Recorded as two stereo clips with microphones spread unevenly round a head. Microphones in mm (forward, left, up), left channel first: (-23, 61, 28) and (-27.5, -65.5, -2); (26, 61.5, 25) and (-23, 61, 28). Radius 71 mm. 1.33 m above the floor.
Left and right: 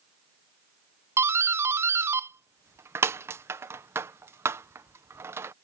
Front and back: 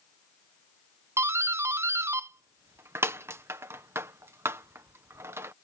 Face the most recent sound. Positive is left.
turn(degrees=-150)